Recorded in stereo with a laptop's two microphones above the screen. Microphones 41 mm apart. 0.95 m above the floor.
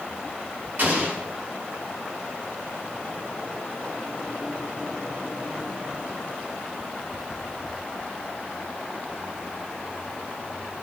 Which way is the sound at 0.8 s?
50° right (ahead or behind).